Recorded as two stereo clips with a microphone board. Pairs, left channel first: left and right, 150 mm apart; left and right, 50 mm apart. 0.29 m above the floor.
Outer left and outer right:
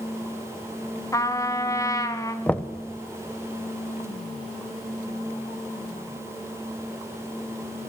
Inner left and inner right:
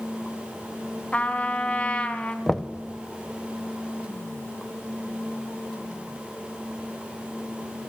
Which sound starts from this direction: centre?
Knocking, at 2.5 s.